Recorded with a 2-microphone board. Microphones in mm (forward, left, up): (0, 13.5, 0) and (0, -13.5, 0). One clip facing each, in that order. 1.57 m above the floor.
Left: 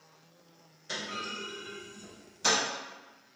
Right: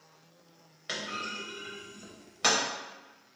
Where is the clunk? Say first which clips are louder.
Right 1 dB; 55° right (ahead or behind), 0.8 m.